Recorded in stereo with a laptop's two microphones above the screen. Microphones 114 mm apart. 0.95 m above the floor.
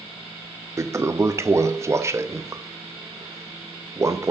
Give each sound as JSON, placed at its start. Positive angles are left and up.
{"t": 0.8, "sound": "a toilet flushing", "side_deg": -25, "distance_m": 0.7}